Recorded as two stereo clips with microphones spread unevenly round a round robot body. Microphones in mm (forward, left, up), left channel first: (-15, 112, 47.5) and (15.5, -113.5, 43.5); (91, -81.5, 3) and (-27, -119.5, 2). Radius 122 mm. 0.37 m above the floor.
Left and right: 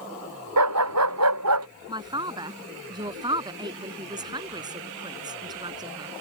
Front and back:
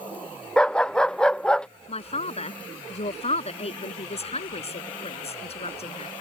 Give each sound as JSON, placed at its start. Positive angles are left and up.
{"t": 0.6, "sound": "a dog barking", "azimuth_deg": -65}
{"t": 1.9, "sound": "a man speaking", "azimuth_deg": -10}